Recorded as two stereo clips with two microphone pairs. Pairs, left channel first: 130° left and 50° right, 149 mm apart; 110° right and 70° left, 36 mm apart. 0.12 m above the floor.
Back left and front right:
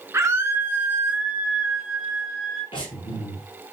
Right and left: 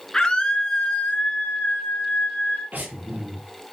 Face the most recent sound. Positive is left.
turn(degrees=85)